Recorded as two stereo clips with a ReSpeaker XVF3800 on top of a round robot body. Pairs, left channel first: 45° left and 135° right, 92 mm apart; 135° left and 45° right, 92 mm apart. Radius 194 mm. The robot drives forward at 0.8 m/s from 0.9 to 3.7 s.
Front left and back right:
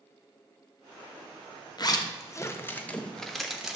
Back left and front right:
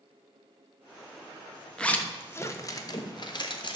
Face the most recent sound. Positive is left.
turn(degrees=140)